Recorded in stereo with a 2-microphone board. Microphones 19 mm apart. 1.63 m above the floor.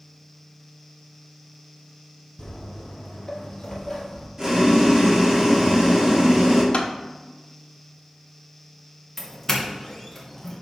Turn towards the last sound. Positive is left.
turn(degrees=15)  # may be behind; listen again after turning